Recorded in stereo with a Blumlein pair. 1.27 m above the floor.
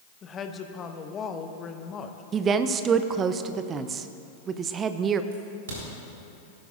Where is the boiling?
I don't hear boiling.